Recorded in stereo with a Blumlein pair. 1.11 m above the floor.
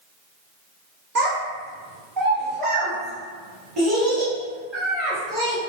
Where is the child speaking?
40° right, 0.7 m; by 5.6 s 30° right, 3 m.